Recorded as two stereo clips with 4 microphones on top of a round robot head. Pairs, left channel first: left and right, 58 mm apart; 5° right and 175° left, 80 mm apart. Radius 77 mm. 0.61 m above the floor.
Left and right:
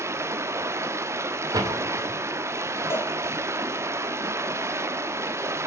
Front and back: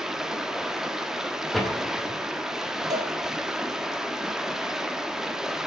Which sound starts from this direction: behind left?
A cowbell, at 2.9 s.